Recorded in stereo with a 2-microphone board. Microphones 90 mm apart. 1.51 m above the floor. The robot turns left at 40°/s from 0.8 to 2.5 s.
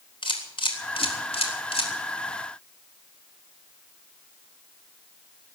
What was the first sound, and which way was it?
A camera shutter, 65° left (ahead or behind).